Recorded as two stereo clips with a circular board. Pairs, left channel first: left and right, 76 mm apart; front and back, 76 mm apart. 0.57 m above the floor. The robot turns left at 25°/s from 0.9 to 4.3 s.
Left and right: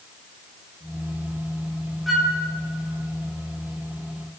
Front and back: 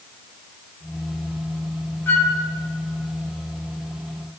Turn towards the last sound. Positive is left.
turn(degrees=-60)